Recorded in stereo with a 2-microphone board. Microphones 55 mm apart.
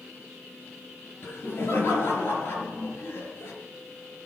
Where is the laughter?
45° left (ahead or behind), 4.5 m.